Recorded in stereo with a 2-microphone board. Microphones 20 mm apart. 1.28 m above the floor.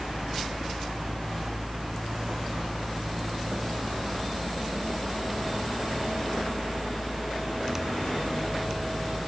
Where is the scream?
No scream in this recording.